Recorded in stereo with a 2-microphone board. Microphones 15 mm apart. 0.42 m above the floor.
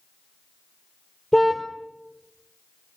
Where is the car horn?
Centre (ahead or behind), 4 m.